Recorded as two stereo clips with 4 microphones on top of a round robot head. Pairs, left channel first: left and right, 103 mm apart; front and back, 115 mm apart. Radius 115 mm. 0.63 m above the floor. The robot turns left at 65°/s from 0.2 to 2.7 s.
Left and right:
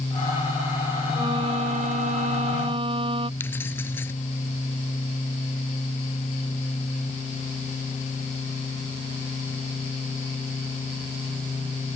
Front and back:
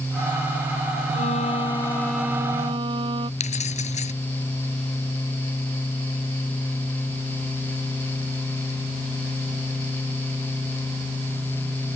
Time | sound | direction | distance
1.1 | a violin | 25° right | ?
3.4 | keys jangling | 15° left | ?